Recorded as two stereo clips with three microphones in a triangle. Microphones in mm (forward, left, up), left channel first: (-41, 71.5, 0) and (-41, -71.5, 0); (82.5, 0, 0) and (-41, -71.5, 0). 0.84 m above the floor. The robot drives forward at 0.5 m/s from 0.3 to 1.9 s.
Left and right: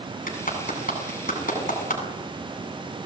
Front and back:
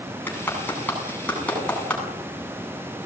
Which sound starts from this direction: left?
A clap, at 0.3 s.